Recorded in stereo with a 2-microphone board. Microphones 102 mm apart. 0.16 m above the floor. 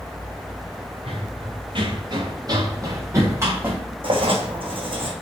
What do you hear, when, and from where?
1.1 s running footsteps: 60° right (ahead or behind), 2.5 m; by 3.8 s 20° right (ahead or behind), 3 m
4.0 s writing: 60° right (ahead or behind), 1.9 m